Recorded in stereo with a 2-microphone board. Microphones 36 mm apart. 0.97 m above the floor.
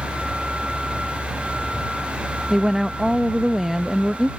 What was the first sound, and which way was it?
A vehicle, 5° right (ahead or behind).